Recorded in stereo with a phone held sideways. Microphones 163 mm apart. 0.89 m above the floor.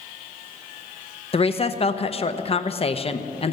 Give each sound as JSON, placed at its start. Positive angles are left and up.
{"t": 1.3, "sound": "a woman speaking", "side_deg": 40, "distance_m": 0.6}